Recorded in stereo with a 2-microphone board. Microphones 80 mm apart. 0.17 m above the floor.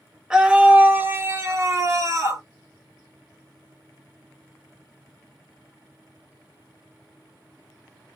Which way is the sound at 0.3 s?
10° right (ahead or behind).